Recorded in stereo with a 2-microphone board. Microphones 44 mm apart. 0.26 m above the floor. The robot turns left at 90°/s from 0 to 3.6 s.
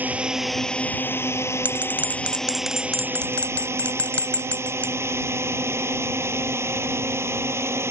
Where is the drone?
40° right (ahead or behind); by 7.9 s 80° right.